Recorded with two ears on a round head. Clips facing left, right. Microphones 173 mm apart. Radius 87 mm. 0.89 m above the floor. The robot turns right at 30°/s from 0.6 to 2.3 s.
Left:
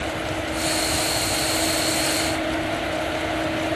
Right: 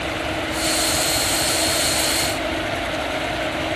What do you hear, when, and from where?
Only background noise.